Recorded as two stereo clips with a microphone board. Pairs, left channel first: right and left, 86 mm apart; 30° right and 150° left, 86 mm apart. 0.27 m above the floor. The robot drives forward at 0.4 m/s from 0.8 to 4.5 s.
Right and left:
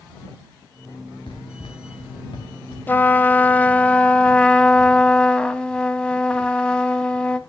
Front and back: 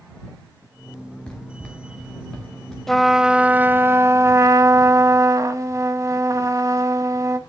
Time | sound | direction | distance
1.3 | running footsteps | 105° right | 1.7 m
2.9 | a trumpet | 105° right | 0.5 m